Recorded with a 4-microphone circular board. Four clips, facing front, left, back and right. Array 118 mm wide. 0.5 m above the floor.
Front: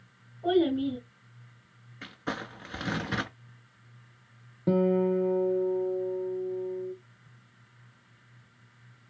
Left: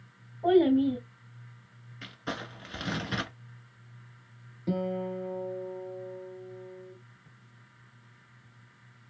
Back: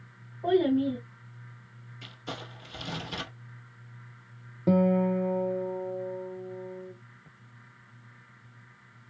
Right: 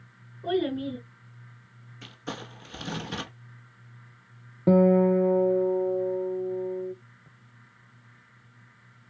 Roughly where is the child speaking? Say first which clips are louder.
Left 6 dB, back 1 dB; left.